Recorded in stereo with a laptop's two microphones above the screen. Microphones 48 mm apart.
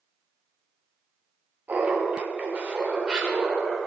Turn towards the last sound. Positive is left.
turn(degrees=-10)  # may be behind; listen again after turning